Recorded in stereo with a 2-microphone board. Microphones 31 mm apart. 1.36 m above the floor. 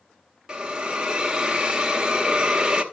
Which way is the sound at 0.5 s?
25° right (ahead or behind).